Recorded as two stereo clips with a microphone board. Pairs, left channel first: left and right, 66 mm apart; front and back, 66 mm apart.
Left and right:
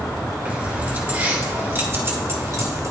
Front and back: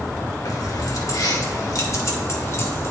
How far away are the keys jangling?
About 3 m.